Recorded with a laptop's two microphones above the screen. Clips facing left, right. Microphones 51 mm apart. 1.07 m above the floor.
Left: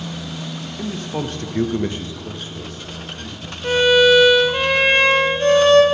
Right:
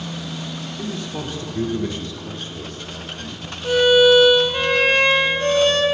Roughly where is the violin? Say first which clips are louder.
Even; left.